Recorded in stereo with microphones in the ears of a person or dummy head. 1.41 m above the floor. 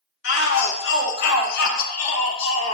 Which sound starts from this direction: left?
A shout, at 0.2 s.